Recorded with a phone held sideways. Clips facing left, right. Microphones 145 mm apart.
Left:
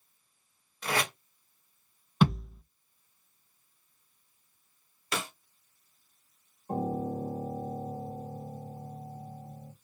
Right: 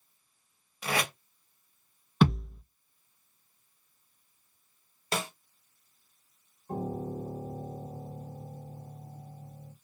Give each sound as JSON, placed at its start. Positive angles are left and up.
{"t": 0.8, "sound": "tape being pulled", "side_deg": -5, "distance_m": 1.1}
{"t": 2.2, "sound": "a thud", "side_deg": 0, "distance_m": 1.5}
{"t": 5.1, "sound": "a snare drum", "side_deg": -30, "distance_m": 0.9}
{"t": 6.7, "sound": "a piano", "side_deg": 40, "distance_m": 1.0}